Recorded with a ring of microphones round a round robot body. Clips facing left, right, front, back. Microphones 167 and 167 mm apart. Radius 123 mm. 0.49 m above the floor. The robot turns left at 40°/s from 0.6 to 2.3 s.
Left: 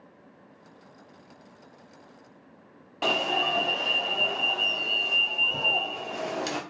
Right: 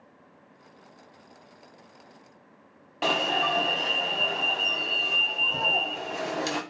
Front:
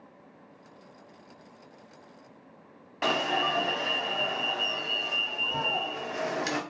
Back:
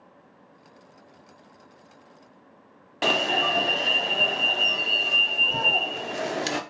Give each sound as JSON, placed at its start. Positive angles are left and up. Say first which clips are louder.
{"t": 3.0, "sound": "an alarm", "louder": "right 1 dB, back 3 dB", "azimuth_deg": 180, "distance_m": 0.6}